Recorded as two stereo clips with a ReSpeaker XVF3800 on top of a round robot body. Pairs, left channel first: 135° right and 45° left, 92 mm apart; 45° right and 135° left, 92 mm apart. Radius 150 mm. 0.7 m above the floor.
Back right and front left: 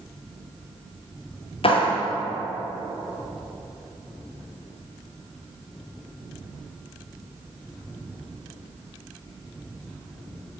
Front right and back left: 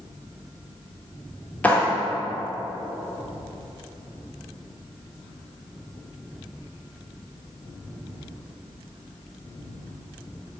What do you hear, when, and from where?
1.6 s a clap: 120° right, 2.5 m